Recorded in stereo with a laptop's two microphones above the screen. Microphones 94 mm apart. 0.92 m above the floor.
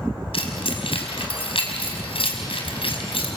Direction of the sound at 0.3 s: 75° left (ahead or behind).